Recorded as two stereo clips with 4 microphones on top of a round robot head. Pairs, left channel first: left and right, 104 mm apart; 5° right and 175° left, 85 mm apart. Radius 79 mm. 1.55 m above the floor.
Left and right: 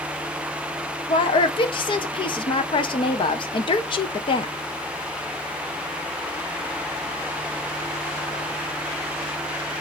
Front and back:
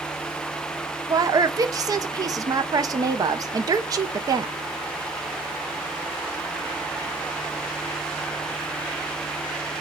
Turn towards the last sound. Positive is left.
turn(degrees=130)